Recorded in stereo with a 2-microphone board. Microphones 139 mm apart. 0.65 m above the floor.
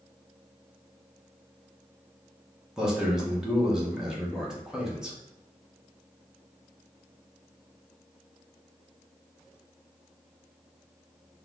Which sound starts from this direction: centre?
A man speaking, at 2.8 s.